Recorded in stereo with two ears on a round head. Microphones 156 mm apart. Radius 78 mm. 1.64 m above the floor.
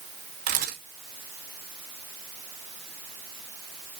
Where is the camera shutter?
45° right (ahead or behind), 3 m.